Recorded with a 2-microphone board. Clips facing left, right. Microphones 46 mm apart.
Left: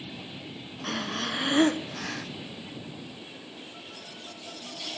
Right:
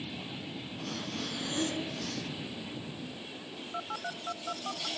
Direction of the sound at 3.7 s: 60° right (ahead or behind).